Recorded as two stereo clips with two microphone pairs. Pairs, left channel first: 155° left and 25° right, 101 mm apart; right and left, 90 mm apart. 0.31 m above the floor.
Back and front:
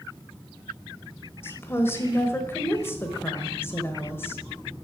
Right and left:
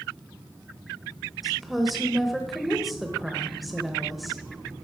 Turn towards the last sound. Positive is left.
turn(degrees=175)